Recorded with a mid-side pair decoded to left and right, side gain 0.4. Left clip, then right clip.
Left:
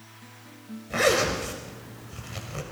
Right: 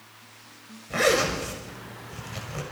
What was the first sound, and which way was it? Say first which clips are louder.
A zipper: even; straight ahead.